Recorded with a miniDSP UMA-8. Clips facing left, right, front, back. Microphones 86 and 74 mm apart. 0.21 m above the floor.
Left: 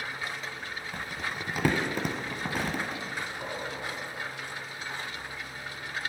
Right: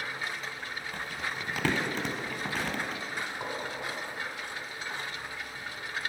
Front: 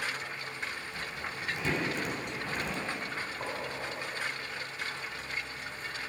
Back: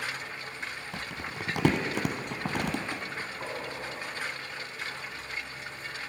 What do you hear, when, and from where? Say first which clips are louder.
0.9 s crumpling: left 1 dB, back 1 dB; 165° left, 0.7 m
3.2 s a gunshot: even, even; 55° right, 1.6 m